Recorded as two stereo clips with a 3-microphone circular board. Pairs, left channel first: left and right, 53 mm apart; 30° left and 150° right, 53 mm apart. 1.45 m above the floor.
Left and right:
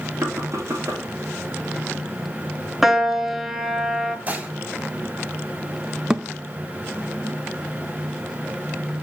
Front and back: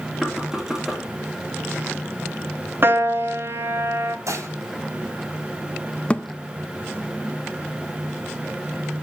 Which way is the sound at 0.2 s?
65° right.